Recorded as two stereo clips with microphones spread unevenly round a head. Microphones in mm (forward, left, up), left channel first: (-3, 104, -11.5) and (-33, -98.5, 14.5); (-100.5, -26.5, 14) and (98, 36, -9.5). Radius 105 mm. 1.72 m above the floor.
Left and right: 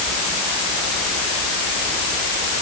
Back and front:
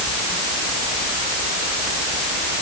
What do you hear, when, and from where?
Only background noise.